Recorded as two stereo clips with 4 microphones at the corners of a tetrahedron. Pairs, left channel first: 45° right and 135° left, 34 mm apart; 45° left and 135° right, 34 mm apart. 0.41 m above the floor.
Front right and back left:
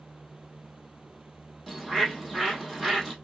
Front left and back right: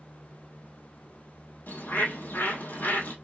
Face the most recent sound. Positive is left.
turn(degrees=40)